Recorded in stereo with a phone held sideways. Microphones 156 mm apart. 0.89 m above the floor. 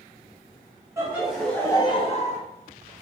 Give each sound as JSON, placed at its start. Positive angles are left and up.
{"t": 1.0, "sound": "laughter", "side_deg": -15, "distance_m": 1.1}